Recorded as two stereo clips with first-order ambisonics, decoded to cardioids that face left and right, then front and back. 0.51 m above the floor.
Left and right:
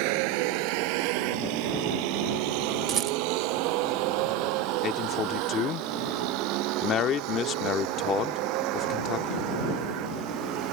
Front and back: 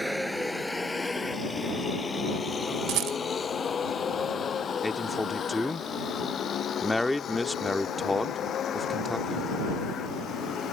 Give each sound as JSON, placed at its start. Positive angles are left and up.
{"t": 0.0, "sound": "a vehicle", "azimuth_deg": -90}
{"t": 2.9, "sound": "a rattle", "azimuth_deg": -150}
{"t": 4.8, "sound": "a man speaking", "azimuth_deg": 80}